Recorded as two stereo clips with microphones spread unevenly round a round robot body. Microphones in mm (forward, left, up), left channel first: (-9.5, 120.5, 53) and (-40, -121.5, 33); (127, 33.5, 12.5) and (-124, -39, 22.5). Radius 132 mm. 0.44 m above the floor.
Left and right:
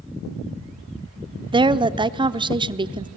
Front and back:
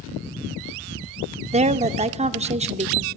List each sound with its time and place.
1.5 s a woman speaking: 125° right, 0.7 m